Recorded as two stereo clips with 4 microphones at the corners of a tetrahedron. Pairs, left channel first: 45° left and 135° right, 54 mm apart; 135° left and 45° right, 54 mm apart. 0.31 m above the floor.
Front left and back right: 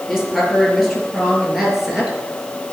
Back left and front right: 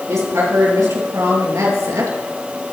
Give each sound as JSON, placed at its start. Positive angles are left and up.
{"t": 0.1, "sound": "a woman speaking", "azimuth_deg": -45, "distance_m": 5.0}